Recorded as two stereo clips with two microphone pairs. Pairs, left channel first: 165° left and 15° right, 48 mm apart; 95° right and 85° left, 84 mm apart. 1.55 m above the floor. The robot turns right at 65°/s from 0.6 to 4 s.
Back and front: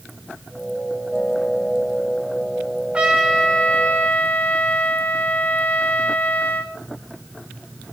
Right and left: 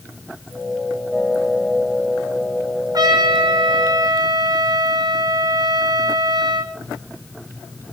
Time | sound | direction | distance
2.9 | a trumpet | 50° left | 5 m